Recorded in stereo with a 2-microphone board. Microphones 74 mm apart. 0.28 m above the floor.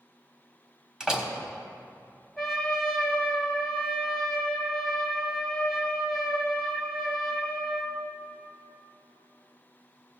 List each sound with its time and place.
1.0 s a door slam: 10° right (ahead or behind), 1.2 m
2.4 s a trumpet: centre (ahead or behind), 1.3 m